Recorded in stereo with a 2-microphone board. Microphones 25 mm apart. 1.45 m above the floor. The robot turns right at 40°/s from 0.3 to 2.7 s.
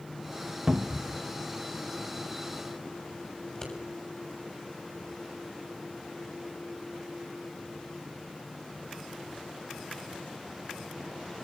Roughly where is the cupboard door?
Right.